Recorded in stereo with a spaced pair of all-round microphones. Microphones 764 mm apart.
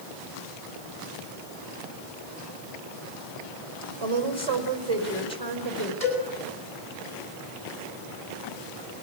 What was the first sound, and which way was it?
A woman speaking, 30° left (ahead or behind).